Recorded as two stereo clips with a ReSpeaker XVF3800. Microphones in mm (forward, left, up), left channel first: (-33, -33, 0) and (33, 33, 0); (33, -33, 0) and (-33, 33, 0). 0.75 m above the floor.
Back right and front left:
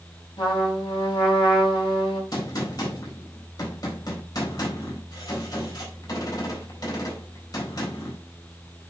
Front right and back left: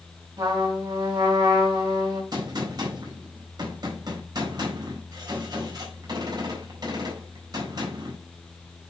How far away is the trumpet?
About 4 m.